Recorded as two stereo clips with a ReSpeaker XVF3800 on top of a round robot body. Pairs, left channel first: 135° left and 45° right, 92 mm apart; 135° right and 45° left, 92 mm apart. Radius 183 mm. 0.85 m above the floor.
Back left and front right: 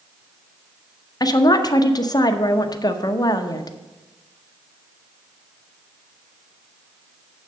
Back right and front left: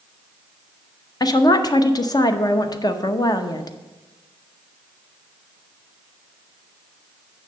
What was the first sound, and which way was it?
A woman speaking, straight behind.